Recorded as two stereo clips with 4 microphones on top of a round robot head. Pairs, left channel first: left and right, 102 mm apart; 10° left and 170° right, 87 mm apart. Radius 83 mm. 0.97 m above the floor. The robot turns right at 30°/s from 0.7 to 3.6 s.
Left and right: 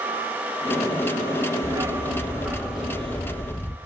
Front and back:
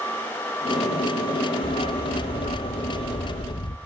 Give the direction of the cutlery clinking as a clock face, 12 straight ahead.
I don't hear cutlery clinking.